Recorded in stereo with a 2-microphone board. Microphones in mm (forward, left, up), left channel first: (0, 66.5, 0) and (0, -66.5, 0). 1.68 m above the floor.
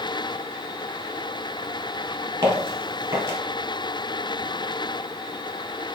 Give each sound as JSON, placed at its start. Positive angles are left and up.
{"t": 2.4, "sound": "footsteps", "side_deg": -20, "distance_m": 1.9}